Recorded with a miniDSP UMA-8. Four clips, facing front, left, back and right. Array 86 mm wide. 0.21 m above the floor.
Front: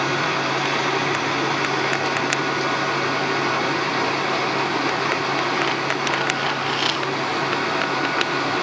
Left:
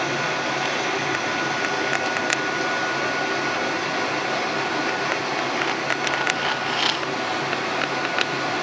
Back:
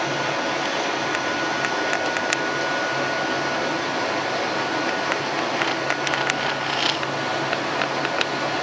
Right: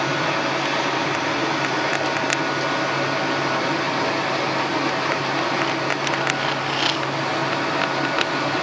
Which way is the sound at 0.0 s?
25° right.